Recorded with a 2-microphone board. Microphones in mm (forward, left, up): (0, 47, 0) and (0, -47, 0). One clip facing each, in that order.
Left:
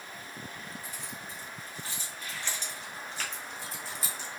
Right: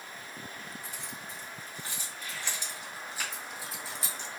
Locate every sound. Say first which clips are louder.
0.8 s keys jangling: even; 20° right (ahead or behind), 3 m; by 4.3 s 5° left (ahead or behind), 1.1 m